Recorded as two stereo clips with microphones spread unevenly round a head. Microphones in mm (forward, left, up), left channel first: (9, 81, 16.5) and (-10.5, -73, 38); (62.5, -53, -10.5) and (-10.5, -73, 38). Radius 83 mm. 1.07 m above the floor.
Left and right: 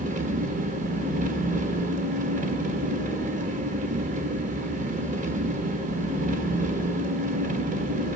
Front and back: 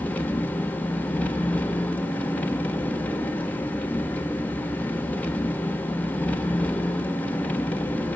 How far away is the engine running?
About 1.3 m.